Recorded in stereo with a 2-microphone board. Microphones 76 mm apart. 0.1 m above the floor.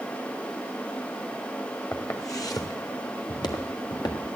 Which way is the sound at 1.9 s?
40° left (ahead or behind).